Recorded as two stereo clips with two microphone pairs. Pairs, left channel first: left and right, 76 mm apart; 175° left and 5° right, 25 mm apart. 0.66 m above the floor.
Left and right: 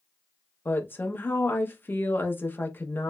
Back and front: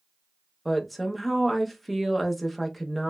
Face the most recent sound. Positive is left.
turn(degrees=80)